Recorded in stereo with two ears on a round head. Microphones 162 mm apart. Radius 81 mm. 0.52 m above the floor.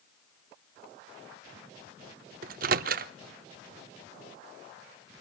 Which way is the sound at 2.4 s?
55° right (ahead or behind).